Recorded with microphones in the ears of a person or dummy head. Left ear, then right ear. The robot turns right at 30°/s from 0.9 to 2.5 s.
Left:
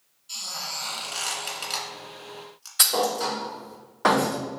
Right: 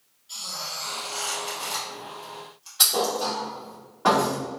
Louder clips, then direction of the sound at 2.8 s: Even; 40° left (ahead or behind).